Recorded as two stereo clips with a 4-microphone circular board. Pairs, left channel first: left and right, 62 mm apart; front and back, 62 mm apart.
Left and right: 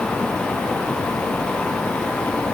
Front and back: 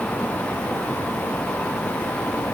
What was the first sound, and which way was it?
Only background noise.